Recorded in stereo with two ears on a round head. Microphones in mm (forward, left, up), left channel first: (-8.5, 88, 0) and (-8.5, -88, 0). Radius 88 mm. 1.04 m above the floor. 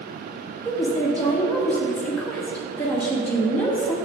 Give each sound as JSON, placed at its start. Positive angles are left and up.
{"t": 0.7, "sound": "a woman speaking", "side_deg": 5, "distance_m": 1.9}